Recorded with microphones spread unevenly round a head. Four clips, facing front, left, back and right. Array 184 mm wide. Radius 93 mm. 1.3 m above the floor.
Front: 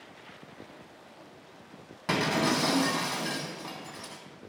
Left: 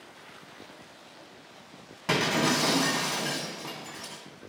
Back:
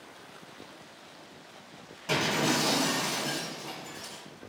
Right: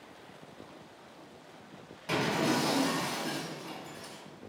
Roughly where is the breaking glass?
Ahead left.